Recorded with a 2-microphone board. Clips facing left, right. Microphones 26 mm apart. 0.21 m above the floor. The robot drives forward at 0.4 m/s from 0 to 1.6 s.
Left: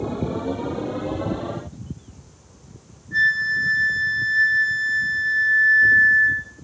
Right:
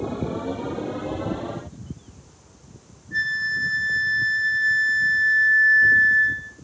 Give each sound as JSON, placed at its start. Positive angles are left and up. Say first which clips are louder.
{"t": 3.1, "sound": "a flute", "louder": "left 5 dB", "side_deg": 0, "distance_m": 7.0}